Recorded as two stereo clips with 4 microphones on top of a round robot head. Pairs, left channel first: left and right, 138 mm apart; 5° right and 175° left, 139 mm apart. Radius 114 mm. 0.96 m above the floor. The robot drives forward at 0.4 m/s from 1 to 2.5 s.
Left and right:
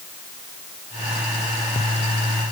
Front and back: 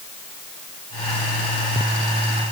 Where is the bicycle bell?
I don't hear a bicycle bell.